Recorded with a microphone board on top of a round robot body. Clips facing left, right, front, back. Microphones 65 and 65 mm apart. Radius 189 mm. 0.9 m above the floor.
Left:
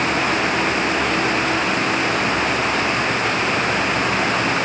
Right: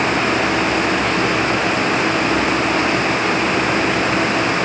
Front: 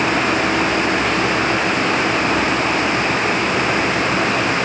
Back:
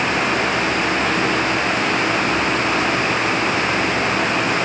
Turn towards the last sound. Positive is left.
No sound to turn to.